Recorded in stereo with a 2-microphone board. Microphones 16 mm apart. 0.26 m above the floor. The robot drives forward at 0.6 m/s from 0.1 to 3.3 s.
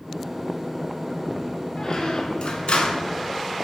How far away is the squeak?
About 0.7 m.